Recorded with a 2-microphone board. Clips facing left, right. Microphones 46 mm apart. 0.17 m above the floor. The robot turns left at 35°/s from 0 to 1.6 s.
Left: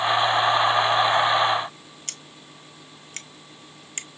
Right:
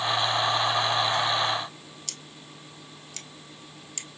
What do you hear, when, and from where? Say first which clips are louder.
2.1 s scissors: left 1 dB; 45° left (ahead or behind), 0.8 m